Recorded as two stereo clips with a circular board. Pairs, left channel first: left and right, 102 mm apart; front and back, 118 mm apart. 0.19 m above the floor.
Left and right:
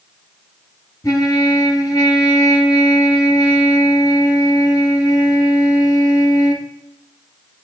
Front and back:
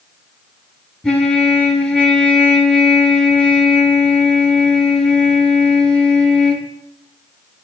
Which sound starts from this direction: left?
A trumpet, at 1.0 s.